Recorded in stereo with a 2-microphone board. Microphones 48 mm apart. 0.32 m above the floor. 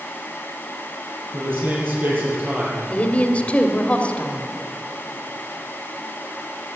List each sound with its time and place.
1.3 s a man speaking: 45° right (ahead or behind), 8 m
2.9 s a woman speaking: 30° left (ahead or behind), 1.4 m